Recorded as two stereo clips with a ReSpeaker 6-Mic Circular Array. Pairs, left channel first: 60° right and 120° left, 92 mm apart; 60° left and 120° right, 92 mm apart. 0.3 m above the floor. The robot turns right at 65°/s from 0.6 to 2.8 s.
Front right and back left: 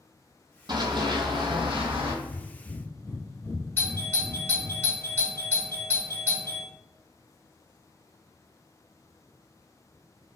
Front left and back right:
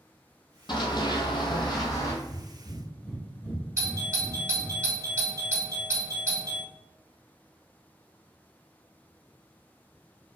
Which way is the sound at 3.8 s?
105° right.